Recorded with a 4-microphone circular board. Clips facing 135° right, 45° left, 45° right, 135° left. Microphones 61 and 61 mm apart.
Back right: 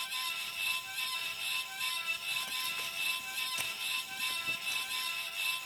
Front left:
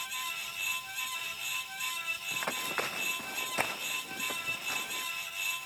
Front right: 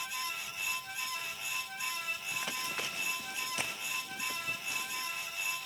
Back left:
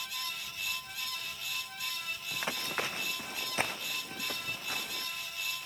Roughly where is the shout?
No shout in this recording.